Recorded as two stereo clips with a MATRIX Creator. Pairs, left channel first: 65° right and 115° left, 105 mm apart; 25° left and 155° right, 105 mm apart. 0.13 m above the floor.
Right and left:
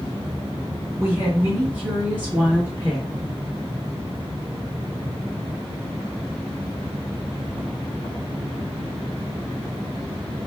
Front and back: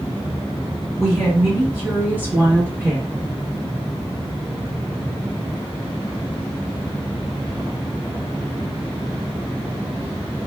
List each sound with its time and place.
1.0 s a woman speaking: 95° left, 1.6 m; by 3.1 s 175° right, 1.8 m